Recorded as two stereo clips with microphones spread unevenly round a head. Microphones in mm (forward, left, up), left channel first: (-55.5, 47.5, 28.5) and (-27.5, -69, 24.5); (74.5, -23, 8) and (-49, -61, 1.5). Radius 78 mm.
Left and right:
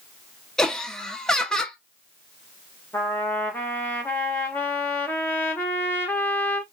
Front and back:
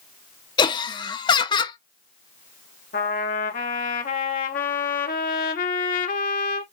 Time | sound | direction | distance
0.6 | laughter | 25° left | 0.7 m
2.9 | a trumpet | 25° left | 1.2 m